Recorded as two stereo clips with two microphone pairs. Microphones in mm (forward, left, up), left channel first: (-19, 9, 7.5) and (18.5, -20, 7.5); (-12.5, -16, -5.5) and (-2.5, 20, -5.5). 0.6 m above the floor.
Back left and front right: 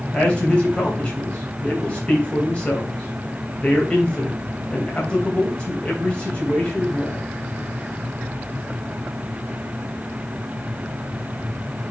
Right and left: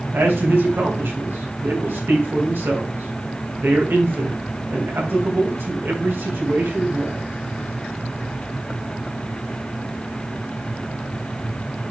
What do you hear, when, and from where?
0.1 s a man speaking: 70° left, 3 m